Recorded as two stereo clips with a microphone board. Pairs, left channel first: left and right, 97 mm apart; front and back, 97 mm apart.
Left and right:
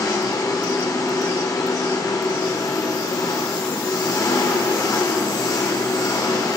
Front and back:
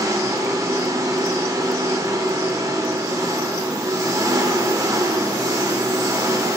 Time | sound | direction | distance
0.0 | an engine running | 135° left | 1.4 m